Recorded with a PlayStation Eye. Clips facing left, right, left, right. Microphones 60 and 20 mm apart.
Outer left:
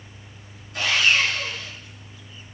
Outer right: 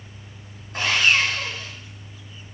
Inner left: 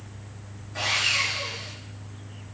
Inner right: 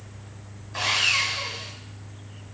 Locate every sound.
0.7 s sawing: 55° right (ahead or behind), 2 m